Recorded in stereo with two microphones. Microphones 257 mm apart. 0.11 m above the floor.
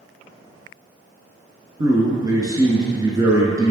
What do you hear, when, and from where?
1.8 s a man speaking: 15° right (ahead or behind), 1.1 m